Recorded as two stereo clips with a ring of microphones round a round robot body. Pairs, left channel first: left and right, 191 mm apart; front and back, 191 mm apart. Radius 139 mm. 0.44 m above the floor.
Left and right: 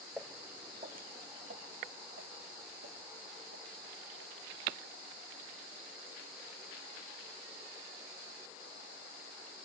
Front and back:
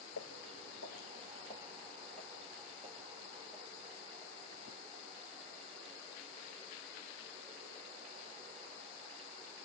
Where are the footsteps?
5° right, 1.9 m; by 5.5 s 100° right, 8 m.